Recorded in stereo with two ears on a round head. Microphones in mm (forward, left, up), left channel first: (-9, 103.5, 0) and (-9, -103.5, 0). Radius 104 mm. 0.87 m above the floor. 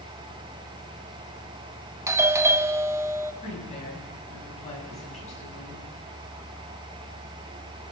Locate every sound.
2.1 s a doorbell: 10° right (ahead or behind), 0.7 m
3.4 s a woman speaking: 30° left (ahead or behind), 7 m